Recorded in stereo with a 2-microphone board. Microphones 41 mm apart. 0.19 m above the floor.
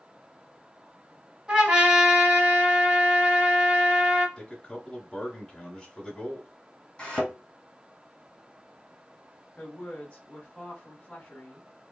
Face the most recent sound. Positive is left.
turn(degrees=25)  # may be behind; listen again after turning